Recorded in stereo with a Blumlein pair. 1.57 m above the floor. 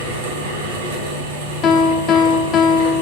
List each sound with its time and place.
0.0 s a fan: 55° right, 2.5 m
1.6 s a piano: 30° left, 0.7 m